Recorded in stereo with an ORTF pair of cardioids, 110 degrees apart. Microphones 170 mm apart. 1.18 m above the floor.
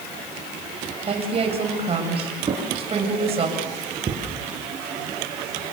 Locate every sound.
1.1 s a woman speaking: 35° right, 6.5 m
2.5 s a drawer: 30° right, 5.5 m